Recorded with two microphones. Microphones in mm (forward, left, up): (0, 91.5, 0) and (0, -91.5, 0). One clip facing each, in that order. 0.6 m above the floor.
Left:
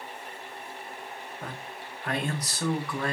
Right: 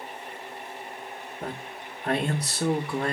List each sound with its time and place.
1.4 s a man speaking: 25° right (ahead or behind), 0.6 m